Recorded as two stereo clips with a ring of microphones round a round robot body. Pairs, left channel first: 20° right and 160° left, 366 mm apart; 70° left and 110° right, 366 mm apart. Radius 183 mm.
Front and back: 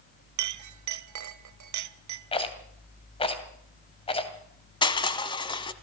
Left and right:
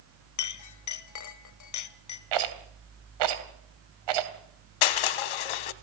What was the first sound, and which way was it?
A clink, 110° left.